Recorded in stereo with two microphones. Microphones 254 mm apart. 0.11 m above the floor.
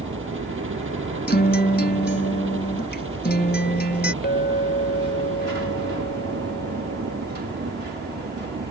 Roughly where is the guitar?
Left.